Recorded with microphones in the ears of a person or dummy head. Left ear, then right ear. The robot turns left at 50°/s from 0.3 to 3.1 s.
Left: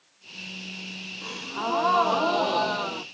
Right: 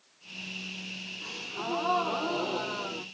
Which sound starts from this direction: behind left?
A gasp, at 1.2 s.